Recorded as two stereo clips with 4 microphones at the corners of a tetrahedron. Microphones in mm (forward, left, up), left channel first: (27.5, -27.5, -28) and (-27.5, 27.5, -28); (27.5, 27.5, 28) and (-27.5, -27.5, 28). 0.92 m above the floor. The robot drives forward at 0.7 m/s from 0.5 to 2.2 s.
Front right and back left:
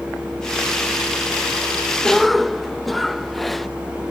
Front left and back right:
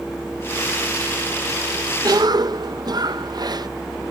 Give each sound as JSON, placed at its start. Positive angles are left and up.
{"t": 2.0, "sound": "a cough", "azimuth_deg": -120}